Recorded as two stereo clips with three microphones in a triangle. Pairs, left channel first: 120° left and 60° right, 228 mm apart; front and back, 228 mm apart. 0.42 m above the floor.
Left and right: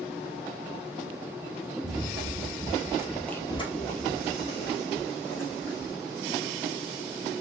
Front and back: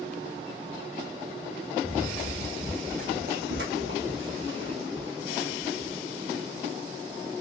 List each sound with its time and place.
1.8 s running footsteps: 90° right, 1.1 m; by 6.0 s 135° left, 1.8 m